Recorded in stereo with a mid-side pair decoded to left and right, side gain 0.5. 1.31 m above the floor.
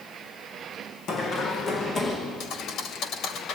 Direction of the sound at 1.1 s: 60° left.